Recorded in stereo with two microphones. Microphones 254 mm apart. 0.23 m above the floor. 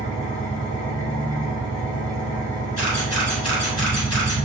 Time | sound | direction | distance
0.0 | an engine running | 60° left (ahead or behind) | 1.4 m
2.8 | a camera shutter | 75° left (ahead or behind) | 1.5 m